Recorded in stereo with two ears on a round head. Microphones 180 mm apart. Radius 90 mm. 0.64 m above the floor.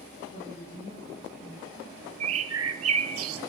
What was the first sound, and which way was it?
A woman speaking, 30° left (ahead or behind).